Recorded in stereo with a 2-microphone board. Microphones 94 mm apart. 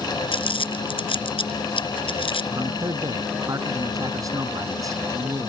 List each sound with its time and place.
0.3 s crumpling: 65° left (ahead or behind)
2.5 s a man speaking: 35° right (ahead or behind)